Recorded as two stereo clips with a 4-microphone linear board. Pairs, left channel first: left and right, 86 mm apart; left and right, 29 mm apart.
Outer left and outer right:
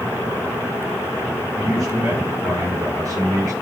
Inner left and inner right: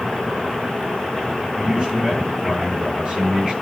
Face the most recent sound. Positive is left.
turn(degrees=-40)  # may be behind; listen again after turning